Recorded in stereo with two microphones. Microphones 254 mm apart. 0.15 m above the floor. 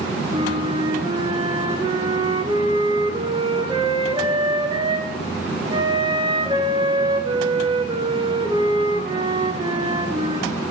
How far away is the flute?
About 0.8 m.